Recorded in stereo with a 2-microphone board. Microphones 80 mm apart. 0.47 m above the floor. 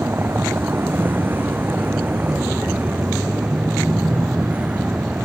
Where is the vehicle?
25° right (ahead or behind); by 5.2 s 15° right (ahead or behind).